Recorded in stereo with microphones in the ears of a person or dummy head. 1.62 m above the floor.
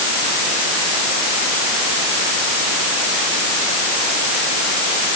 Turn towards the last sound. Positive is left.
No sound to turn to.